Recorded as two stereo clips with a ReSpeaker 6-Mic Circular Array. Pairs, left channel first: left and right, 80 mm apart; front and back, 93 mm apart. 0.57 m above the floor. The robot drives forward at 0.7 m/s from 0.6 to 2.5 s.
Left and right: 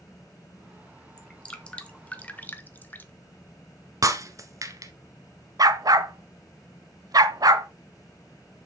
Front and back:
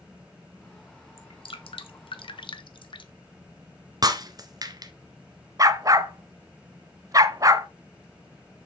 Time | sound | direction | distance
1.2 | dripping | 10° left | 1.8 m
4.0 | breaking glass | 135° right | 1.3 m
5.6 | a dog barking | 130° right | 1.0 m